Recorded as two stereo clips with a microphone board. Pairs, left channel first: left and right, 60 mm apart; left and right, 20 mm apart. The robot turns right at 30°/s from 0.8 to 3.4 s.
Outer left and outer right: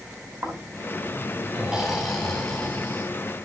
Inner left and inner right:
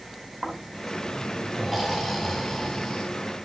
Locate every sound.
0.4 s snoring: 35° right, 5 m; by 3.0 s 30° left, 5 m